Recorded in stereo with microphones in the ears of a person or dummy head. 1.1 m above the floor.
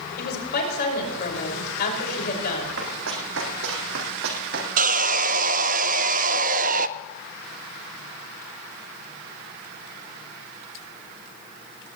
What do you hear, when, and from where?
0.2 s a woman speaking: 50° left (ahead or behind), 5.5 m
2.8 s running footsteps: 70° right (ahead or behind), 3.5 m; by 4.7 s 50° right (ahead or behind), 3 m
4.8 s sawing: 45° right (ahead or behind), 0.6 m